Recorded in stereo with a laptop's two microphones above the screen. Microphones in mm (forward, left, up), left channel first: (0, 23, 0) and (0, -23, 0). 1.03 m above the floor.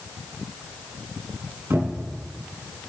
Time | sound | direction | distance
1.7 | a cupboard door | 55° right (ahead or behind) | 9.5 m